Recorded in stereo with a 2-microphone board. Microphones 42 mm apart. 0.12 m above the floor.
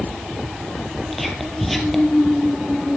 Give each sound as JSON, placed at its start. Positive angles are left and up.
{"t": 1.1, "sound": "whispering", "side_deg": 5, "distance_m": 3.0}